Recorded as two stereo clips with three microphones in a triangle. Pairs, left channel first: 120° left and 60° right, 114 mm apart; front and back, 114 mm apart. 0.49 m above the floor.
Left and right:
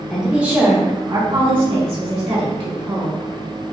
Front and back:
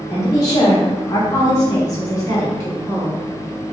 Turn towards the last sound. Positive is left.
turn(degrees=-60)